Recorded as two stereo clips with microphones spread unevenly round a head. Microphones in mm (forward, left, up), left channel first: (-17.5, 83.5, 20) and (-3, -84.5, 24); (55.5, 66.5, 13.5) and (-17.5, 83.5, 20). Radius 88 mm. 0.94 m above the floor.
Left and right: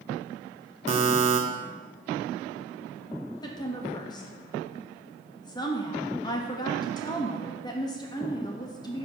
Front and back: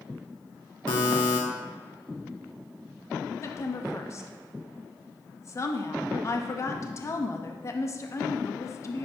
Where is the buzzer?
35° right, 0.8 m.